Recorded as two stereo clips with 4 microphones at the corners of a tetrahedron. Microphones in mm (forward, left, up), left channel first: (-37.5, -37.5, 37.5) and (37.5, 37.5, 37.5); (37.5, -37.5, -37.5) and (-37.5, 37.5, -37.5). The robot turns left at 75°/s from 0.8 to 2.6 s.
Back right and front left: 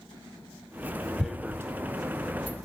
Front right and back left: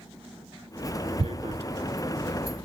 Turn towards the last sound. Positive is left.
turn(degrees=40)